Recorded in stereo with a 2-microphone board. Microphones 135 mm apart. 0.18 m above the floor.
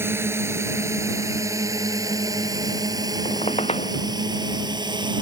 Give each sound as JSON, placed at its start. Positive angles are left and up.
{"t": 0.0, "sound": "a drone", "side_deg": -15}
{"t": 3.2, "sound": "a squeak", "side_deg": 50}